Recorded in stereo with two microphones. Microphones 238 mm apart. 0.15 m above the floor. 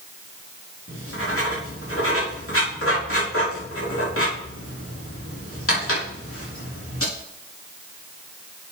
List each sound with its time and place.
0.9 s writing: 65° left (ahead or behind), 4.5 m